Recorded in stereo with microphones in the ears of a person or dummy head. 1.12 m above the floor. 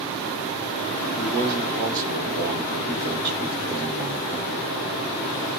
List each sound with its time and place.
1.2 s a man speaking: 50° right (ahead or behind), 1.6 m